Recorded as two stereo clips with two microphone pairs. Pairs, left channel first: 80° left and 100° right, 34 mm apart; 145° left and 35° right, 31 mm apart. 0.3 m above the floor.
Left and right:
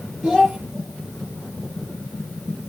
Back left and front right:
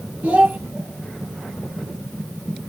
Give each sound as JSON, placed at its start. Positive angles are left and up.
{"t": 0.2, "sound": "a child speaking", "azimuth_deg": -15, "distance_m": 5.0}